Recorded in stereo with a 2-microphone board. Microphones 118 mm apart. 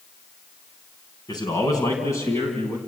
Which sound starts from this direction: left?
A man speaking, at 1.3 s.